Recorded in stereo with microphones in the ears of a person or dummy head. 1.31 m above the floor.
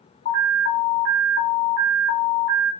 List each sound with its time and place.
0.2 s an alarm: 45° left (ahead or behind), 1.0 m